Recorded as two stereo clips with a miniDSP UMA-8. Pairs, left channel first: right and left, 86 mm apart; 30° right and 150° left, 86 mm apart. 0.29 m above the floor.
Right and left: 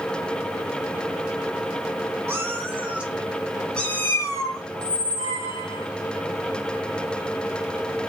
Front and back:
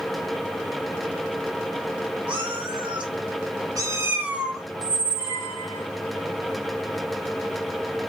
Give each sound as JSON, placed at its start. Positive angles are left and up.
{"t": 2.3, "sound": "a cat meowing", "azimuth_deg": 150, "distance_m": 1.2}
{"t": 4.7, "sound": "a squeak", "azimuth_deg": -135, "distance_m": 2.0}